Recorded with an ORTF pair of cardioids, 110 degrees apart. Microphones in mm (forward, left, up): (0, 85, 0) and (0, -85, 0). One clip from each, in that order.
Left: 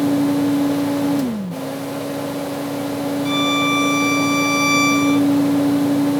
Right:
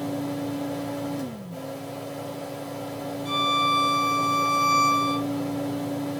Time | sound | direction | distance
0.0 | a fan | 65° left | 0.9 m
3.2 | a violin | 55° left | 2.0 m